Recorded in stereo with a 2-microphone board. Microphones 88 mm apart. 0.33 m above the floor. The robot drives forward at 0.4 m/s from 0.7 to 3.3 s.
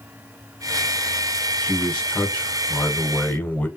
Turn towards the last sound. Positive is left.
turn(degrees=20)  # may be behind; listen again after turning